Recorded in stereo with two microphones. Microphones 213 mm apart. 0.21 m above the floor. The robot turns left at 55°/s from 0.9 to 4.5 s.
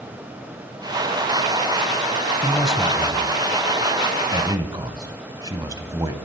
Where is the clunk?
No clunk in this recording.